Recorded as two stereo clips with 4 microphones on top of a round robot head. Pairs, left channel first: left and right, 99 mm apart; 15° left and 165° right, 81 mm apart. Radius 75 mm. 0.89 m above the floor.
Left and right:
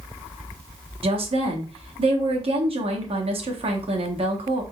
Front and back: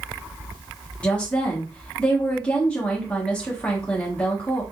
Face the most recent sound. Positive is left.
turn(degrees=-65)